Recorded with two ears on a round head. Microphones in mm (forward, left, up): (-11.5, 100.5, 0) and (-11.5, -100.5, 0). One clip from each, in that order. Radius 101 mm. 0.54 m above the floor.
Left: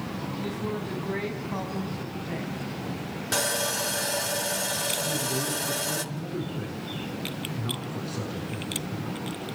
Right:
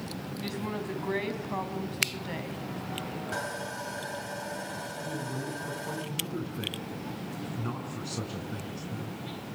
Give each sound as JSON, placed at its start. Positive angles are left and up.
{"t": 0.4, "sound": "a woman speaking", "side_deg": -40, "distance_m": 4.0}
{"t": 3.3, "sound": "sawing", "side_deg": 70, "distance_m": 1.5}
{"t": 5.0, "sound": "a man speaking", "side_deg": -80, "distance_m": 6.5}